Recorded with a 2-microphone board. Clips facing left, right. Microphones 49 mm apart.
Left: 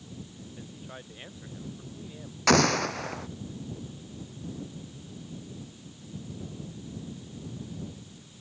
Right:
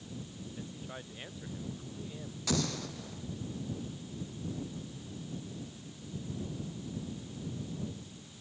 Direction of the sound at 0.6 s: 5° left (ahead or behind).